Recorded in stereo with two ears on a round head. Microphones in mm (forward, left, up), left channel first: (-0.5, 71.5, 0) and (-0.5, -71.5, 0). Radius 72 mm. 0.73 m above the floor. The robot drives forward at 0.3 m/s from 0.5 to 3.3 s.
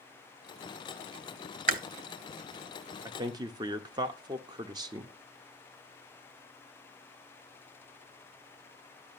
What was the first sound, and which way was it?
Chewing, 55° right (ahead or behind).